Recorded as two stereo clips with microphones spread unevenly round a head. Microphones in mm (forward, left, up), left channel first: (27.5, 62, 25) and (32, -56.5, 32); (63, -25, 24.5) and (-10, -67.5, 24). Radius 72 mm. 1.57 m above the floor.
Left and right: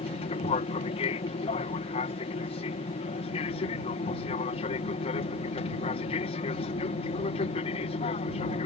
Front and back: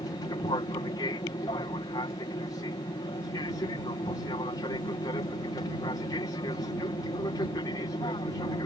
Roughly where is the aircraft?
Left.